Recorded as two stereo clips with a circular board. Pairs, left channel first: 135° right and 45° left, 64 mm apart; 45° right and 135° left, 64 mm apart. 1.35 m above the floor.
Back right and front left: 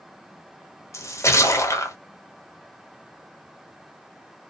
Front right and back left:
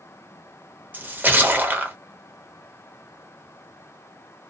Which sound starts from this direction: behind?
A splash, at 0.9 s.